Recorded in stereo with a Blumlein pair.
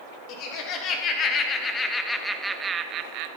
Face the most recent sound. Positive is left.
turn(degrees=-45)